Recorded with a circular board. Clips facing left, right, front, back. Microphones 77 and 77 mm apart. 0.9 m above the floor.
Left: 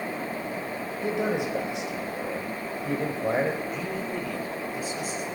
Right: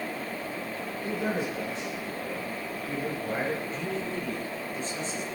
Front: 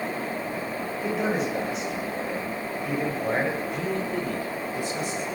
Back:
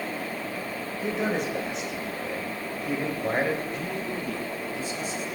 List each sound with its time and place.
1.0 s a man speaking: 90° left, 4 m
3.7 s a man speaking: 10° left, 3.5 m